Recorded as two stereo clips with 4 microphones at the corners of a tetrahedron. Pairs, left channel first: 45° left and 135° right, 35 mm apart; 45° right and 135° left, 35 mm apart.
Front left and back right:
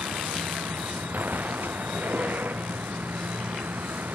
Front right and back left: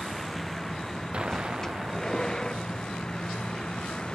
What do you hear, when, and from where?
0.0 s a vehicle: 125° right; by 4.2 s 105° right
1.1 s an explosion: 160° right